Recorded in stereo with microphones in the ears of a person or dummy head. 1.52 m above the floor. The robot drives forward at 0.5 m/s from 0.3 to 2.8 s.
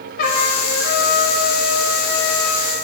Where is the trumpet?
55° left (ahead or behind), 1.5 m; by 2.7 s 50° left (ahead or behind), 1.6 m.